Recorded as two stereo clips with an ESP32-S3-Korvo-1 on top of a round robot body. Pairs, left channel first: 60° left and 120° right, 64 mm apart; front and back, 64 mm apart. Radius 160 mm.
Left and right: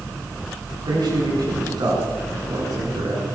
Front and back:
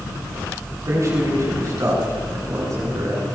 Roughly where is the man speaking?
Behind right.